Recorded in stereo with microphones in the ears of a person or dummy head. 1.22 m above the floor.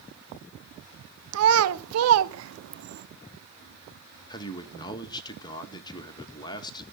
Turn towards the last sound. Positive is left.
turn(degrees=20)  # may be behind; listen again after turning